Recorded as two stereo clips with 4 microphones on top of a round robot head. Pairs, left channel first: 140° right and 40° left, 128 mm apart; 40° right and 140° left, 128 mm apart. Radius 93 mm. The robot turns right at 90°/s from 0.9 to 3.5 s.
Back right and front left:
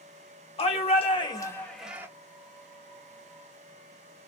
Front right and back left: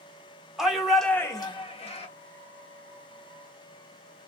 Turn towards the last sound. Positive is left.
turn(degrees=100)